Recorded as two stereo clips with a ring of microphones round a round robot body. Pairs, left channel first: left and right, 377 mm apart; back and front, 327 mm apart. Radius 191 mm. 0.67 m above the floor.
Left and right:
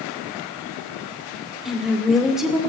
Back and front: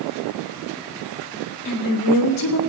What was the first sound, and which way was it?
A woman speaking, straight behind.